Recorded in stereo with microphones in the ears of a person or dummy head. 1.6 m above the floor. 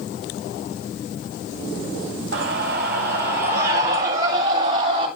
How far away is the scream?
About 1.3 m.